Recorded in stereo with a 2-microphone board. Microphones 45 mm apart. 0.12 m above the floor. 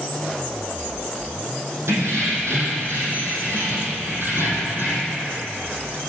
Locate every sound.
1.9 s keys jangling: 75° right (ahead or behind), 3.5 m; by 5.2 s 45° right (ahead or behind), 3 m